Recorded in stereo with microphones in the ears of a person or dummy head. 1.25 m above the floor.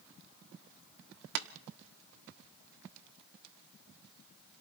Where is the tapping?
55° right (ahead or behind), 1.2 m.